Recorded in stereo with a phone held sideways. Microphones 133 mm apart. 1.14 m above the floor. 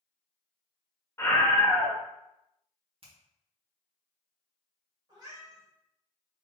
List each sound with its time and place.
1.2 s a scream: 20° left (ahead or behind), 1.2 m
3.0 s a finger snap: 45° right (ahead or behind), 1.5 m
5.1 s a cat meowing: 30° right (ahead or behind), 2 m